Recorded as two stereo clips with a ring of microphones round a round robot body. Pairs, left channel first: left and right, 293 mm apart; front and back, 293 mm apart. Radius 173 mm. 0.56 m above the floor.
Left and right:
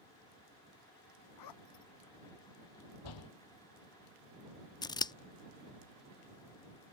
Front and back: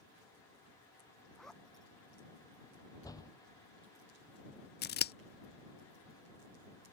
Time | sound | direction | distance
1.4 | a zipper | 90° left | ?
3.0 | a door slam | 80° left | ?
4.8 | scissors | 25° left | ?